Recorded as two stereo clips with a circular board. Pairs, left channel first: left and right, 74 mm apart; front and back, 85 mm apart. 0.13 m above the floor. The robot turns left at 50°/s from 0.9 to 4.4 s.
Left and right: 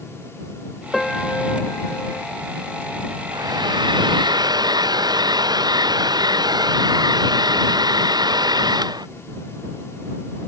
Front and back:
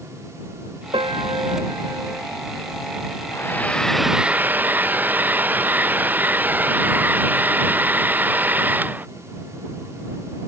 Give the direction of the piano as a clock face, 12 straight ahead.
6 o'clock.